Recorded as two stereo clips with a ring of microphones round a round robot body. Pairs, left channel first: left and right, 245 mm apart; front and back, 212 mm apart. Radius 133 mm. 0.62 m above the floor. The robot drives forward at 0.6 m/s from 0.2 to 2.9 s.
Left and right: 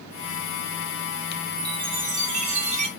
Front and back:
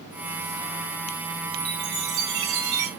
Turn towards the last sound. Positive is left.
turn(degrees=-155)